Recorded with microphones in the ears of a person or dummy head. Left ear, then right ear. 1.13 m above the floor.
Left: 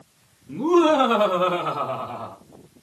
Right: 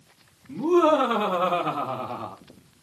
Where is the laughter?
15° left (ahead or behind), 1.8 m; by 2.4 s 15° right (ahead or behind), 1.3 m.